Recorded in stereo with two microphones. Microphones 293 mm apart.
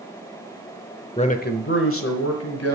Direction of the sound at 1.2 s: 20° left (ahead or behind).